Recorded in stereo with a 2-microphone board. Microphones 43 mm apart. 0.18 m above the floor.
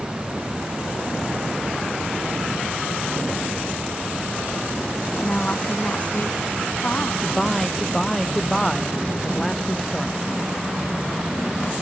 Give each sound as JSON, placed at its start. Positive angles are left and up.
{"t": 5.2, "sound": "a woman speaking", "side_deg": 30}
{"t": 7.2, "sound": "a man speaking", "side_deg": 5}